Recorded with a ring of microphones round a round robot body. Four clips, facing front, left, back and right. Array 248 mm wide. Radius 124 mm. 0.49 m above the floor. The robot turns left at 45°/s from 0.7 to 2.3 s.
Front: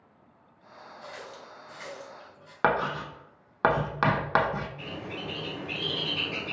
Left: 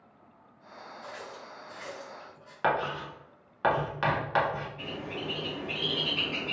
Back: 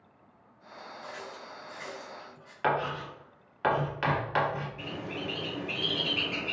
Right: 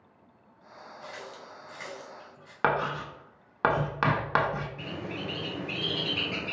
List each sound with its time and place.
1.0 s a running tap: 50° right, 2 m; by 2.5 s 105° right, 2 m
2.6 s writing: 35° right, 0.7 m
4.8 s a bird: 95° right, 2 m